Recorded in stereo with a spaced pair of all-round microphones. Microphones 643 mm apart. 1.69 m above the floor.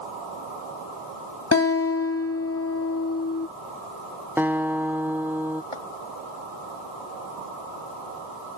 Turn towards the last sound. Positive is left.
turn(degrees=50)  # may be behind; listen again after turning